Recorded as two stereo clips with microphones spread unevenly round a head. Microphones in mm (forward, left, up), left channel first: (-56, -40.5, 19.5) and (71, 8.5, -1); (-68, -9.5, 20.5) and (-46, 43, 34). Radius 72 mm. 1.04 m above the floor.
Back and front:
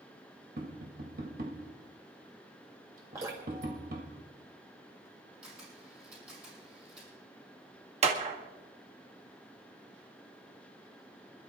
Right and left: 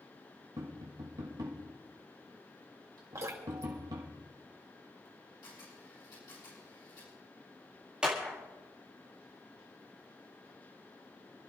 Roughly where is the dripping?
Left.